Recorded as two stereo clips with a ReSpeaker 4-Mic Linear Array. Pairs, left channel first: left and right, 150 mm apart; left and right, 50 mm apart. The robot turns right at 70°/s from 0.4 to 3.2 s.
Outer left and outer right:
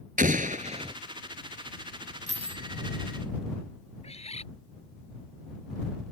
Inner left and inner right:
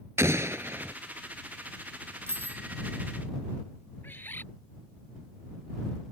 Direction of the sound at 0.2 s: 80° right.